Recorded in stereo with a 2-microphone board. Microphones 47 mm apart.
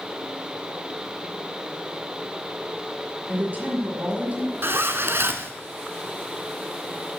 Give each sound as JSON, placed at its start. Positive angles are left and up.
{"t": 3.3, "sound": "a woman speaking", "side_deg": -35, "distance_m": 3.0}
{"t": 4.6, "sound": "a zipper", "side_deg": -55, "distance_m": 0.8}